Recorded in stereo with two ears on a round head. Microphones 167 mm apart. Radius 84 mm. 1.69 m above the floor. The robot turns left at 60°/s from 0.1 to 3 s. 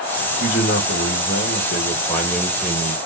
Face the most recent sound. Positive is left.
turn(degrees=-35)